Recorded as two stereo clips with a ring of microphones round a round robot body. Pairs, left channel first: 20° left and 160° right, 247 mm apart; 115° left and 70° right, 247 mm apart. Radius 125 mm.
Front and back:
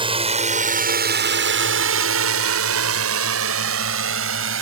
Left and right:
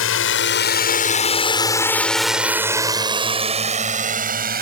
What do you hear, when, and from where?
0.0 s a drone: 135° left; by 4.6 s 120° right